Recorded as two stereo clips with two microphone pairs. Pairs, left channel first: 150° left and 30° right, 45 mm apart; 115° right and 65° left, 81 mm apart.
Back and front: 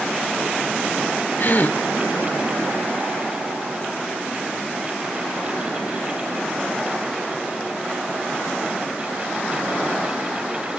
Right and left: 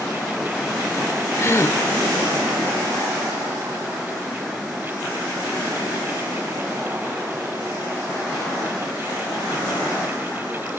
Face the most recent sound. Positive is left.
turn(degrees=-170)